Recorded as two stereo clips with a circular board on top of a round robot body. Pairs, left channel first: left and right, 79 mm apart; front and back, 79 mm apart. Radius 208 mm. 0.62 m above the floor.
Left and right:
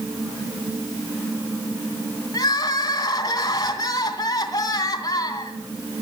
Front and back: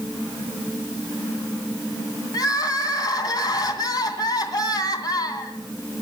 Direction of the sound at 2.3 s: 45° left.